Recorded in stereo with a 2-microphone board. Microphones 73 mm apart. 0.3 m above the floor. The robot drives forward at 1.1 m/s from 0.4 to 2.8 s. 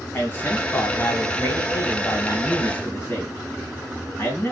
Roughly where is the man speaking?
Left.